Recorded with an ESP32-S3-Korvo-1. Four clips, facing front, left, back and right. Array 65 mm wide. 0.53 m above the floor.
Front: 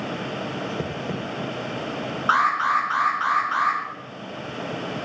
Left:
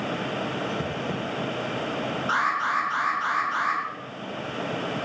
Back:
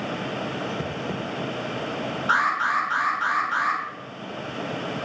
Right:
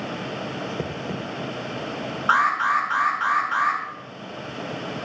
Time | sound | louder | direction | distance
2.3 | an alarm | right 6 dB, front 2 dB | 45° right | 4 m